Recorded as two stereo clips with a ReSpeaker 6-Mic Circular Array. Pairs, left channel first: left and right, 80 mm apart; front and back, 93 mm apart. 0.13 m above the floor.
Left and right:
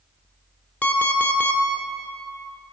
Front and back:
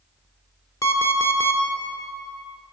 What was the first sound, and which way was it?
An alarm clock, 25° left.